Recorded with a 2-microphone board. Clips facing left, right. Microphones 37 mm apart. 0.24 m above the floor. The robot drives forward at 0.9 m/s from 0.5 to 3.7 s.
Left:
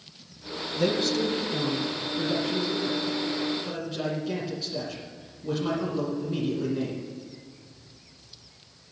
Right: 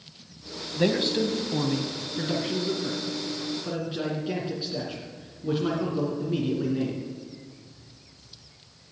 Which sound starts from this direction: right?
A man speaking, at 0.8 s.